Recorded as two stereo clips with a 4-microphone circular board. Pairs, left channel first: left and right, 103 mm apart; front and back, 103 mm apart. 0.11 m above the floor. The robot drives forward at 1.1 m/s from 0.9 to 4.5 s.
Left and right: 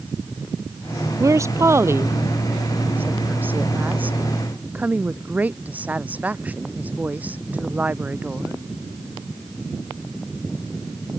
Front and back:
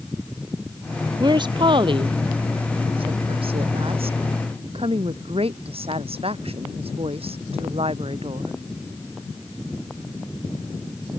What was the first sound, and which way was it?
A woman speaking, 145° right.